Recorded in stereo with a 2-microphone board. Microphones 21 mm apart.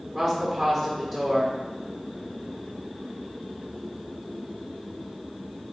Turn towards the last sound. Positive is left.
turn(degrees=-30)  # may be behind; listen again after turning